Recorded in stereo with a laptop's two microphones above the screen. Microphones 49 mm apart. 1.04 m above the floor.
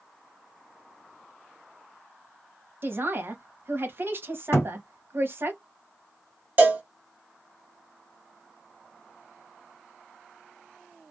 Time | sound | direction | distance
2.8 | a man speaking | 50° right (ahead or behind) | 1.0 m
4.5 | a thud | 55° left (ahead or behind) | 1.1 m
6.6 | a cowbell | 35° right (ahead or behind) | 0.8 m